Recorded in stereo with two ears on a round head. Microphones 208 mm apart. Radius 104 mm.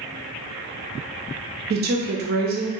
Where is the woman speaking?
45° right (ahead or behind), 0.6 m.